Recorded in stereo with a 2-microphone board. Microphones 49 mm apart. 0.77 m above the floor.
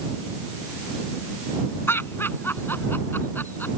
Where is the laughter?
50° left (ahead or behind); by 3.7 s 45° left (ahead or behind).